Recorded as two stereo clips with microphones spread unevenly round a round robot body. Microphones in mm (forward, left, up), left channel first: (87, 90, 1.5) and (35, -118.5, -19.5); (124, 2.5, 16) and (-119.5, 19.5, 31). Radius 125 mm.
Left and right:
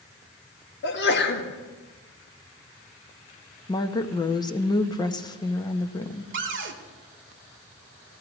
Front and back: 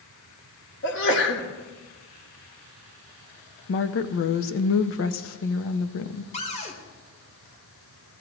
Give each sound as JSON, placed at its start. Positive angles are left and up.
{"t": 0.8, "sound": "a sneeze", "azimuth_deg": 40, "distance_m": 1.6}
{"t": 3.7, "sound": "a woman speaking", "azimuth_deg": 5, "distance_m": 0.7}
{"t": 6.3, "sound": "a cupboard door", "azimuth_deg": -70, "distance_m": 1.2}